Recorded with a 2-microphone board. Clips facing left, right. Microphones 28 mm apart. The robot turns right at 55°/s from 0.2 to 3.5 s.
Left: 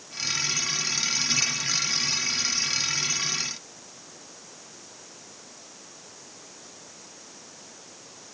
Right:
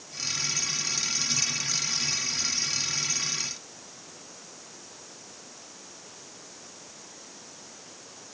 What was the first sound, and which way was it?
Only background noise.